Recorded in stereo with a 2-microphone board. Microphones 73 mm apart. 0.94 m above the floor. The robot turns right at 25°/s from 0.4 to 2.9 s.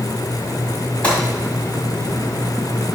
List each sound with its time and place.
1.0 s a gunshot: 15° left (ahead or behind), 2.5 m; by 1.2 s 20° left (ahead or behind), 2.5 m